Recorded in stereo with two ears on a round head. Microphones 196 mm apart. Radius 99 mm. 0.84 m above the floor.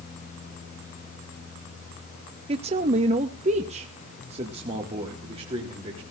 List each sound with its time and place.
2.5 s a man speaking: 25° right (ahead or behind), 0.6 m